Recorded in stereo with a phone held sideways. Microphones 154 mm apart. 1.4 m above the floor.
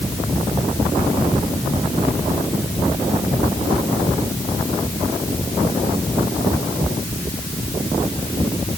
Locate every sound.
Only background noise.